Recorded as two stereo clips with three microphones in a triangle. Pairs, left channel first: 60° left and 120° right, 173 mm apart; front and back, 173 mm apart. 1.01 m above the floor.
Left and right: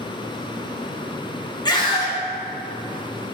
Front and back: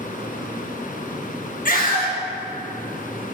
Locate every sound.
1.6 s a scream: straight ahead, 1.3 m